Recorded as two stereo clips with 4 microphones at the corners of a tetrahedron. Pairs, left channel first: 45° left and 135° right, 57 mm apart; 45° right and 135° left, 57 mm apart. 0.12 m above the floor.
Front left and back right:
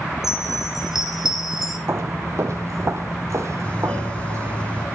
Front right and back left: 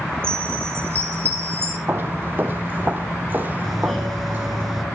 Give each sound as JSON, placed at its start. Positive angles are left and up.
{"t": 0.2, "sound": "a chime", "azimuth_deg": 145, "distance_m": 1.2}
{"t": 1.9, "sound": "footsteps", "azimuth_deg": -175, "distance_m": 0.5}
{"t": 3.6, "sound": "a doorbell", "azimuth_deg": 40, "distance_m": 1.6}